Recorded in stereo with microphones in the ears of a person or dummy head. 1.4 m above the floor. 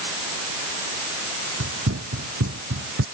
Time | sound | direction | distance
1.6 | running footsteps | 75° right (ahead or behind) | ?